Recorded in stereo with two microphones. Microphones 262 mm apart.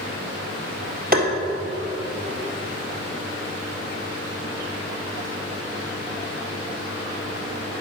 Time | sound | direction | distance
1.1 | tapping | 35° right (ahead or behind) | 1.6 m